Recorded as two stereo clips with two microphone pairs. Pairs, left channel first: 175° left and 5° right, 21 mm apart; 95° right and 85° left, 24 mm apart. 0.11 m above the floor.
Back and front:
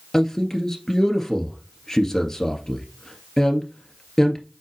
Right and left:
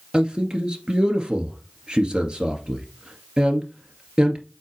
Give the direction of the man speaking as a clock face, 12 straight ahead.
8 o'clock.